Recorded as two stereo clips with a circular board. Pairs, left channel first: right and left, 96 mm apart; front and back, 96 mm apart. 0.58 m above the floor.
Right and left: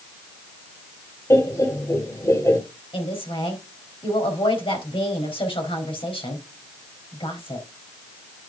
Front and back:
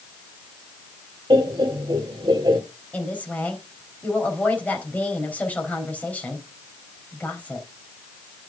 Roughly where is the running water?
No running water in this recording.